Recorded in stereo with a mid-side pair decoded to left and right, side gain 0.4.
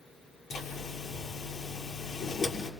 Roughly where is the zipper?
Ahead left.